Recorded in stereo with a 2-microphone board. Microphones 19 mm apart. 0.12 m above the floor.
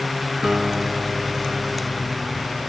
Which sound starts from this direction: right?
A guitar, at 0.4 s.